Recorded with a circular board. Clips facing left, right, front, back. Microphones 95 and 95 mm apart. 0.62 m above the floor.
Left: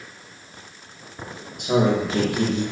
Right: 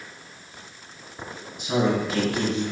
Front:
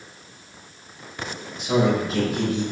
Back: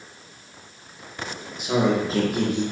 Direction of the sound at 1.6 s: 95° left.